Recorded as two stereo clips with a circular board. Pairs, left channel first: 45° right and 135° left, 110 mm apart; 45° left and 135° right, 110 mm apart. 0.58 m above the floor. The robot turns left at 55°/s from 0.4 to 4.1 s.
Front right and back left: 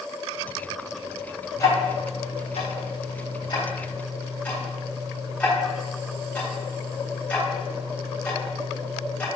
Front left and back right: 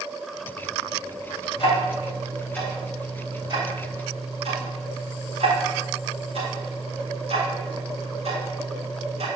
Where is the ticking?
20° left, 3.5 m; by 9.3 s 120° right, 3.5 m.